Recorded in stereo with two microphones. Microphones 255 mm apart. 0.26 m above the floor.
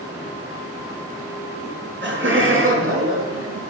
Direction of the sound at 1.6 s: 45° right (ahead or behind).